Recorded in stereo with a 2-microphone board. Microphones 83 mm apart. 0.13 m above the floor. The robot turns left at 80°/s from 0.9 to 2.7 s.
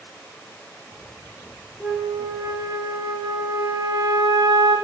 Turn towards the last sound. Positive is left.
turn(degrees=-70)